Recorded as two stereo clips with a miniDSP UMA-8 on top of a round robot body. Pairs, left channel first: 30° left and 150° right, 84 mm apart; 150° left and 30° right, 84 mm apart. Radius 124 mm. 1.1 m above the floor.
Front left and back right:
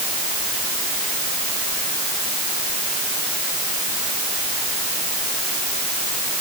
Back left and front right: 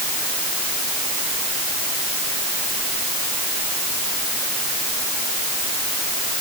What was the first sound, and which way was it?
Only background noise.